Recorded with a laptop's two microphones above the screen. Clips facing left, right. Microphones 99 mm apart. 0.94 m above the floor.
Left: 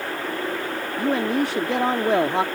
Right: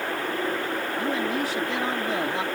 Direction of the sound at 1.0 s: 65° left (ahead or behind).